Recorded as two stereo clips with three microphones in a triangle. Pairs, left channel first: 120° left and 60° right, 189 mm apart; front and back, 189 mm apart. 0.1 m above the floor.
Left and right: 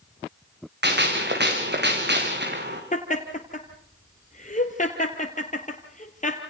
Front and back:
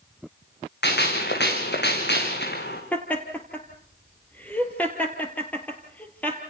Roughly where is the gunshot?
Ahead right.